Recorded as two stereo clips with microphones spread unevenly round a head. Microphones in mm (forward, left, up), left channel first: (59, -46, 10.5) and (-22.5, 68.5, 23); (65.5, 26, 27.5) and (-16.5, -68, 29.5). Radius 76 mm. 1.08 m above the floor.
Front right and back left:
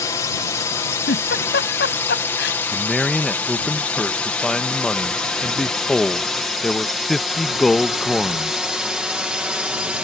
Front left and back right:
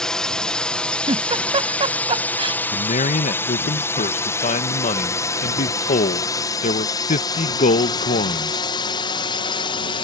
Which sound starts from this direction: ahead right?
A drone, at 0.0 s.